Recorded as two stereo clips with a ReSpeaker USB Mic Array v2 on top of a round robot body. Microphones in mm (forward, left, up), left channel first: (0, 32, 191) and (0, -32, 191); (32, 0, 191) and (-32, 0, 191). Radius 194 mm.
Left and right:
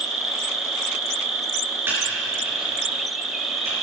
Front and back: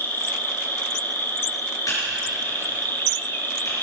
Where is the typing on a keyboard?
35° right, 5 m.